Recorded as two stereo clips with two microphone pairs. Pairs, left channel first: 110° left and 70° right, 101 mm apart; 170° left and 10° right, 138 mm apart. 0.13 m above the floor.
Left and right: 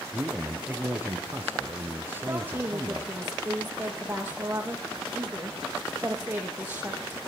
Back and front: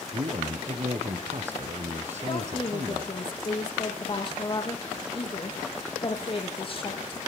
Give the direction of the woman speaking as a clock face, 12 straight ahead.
5 o'clock.